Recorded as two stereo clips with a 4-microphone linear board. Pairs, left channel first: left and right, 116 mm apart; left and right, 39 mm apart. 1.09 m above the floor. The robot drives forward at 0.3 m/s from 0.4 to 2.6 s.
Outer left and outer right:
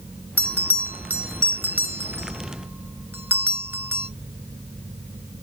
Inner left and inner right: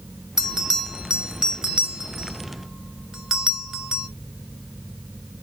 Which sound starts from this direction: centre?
A bell, at 0.4 s.